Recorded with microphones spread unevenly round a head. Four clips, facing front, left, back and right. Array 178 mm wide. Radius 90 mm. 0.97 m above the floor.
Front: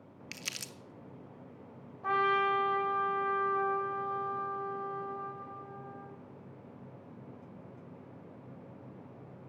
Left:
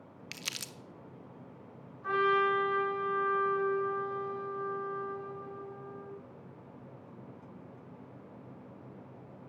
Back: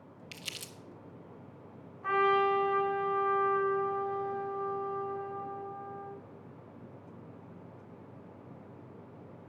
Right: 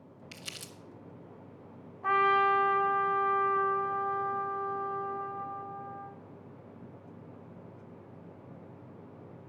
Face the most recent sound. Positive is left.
turn(degrees=-60)